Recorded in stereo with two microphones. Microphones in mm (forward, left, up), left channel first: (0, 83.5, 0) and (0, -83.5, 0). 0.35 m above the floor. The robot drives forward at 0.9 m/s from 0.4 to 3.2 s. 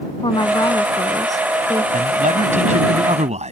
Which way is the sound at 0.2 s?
30° left (ahead or behind).